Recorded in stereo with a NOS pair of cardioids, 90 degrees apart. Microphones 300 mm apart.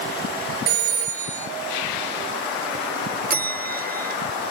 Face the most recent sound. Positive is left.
turn(degrees=-30)